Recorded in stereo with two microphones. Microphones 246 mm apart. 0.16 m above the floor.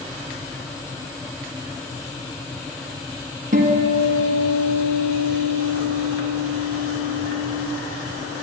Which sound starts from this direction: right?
A guitar, at 3.5 s.